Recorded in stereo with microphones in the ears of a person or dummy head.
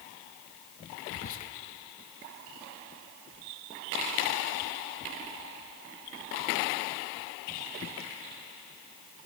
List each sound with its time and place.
1.1 s whispering: 40° left (ahead or behind), 0.6 m